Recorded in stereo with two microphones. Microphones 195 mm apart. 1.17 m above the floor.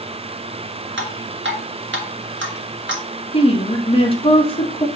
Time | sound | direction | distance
1.0 | dripping | 70° right (ahead or behind) | 1.8 m
3.3 | a woman speaking | 25° left (ahead or behind) | 1.4 m